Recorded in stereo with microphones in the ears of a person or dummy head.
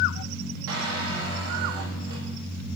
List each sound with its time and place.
0.7 s a squeak: 65° right (ahead or behind), 1.2 m